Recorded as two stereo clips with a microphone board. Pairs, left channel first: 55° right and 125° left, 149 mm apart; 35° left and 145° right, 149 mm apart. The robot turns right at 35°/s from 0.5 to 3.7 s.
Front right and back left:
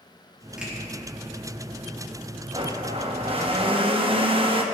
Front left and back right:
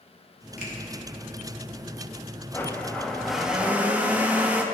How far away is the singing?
No singing in this recording.